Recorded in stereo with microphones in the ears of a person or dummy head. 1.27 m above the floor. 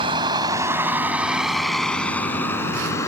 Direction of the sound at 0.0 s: 35° right (ahead or behind).